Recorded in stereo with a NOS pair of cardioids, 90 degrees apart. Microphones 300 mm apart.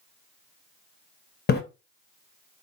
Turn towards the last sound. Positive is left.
turn(degrees=35)